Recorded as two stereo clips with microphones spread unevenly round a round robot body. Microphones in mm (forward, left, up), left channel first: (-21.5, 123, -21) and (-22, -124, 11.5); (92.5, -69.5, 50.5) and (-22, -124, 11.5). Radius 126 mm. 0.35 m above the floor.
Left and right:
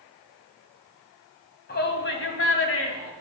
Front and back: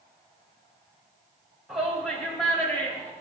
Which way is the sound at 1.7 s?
130° left.